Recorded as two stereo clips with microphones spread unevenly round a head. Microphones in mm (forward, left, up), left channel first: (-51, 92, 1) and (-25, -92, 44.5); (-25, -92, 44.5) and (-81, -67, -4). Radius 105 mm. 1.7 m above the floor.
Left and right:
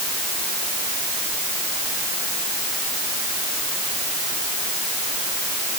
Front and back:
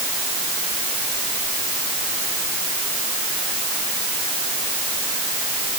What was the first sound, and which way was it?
Only background noise.